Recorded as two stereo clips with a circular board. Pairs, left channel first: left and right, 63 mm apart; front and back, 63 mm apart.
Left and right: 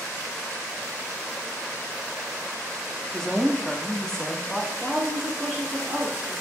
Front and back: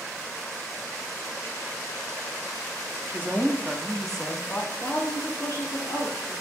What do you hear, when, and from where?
3.1 s a woman speaking: 165° left, 0.8 m; by 6.3 s 10° left, 1.5 m